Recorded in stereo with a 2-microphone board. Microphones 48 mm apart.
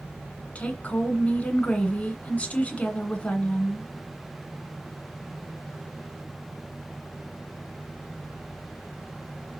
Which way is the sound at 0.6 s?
25° left (ahead or behind).